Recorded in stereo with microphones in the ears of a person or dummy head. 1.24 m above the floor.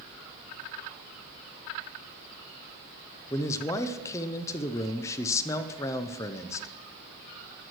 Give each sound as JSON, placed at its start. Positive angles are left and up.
{"t": 3.3, "sound": "a man speaking", "side_deg": 20, "distance_m": 0.6}